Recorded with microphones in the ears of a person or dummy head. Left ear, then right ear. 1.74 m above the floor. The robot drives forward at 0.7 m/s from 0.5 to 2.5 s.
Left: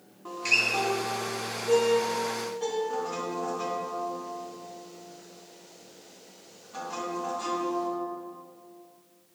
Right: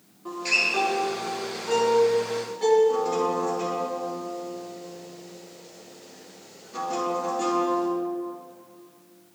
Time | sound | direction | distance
0.2 | a guitar | 25° left (ahead or behind) | 1.1 m